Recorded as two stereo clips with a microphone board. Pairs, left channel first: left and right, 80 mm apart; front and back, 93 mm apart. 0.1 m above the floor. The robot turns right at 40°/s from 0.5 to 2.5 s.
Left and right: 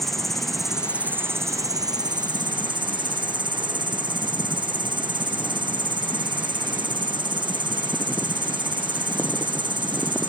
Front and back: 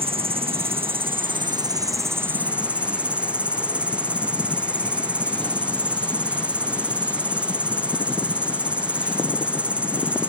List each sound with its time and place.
0.0 s an insect: 175° left; by 10.3 s 105° right